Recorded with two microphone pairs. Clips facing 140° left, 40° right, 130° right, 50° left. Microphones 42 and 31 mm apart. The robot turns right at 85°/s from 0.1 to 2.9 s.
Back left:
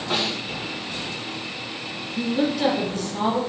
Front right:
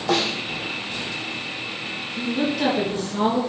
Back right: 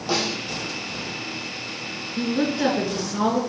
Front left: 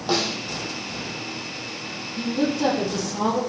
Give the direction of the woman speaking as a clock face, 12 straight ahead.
5 o'clock.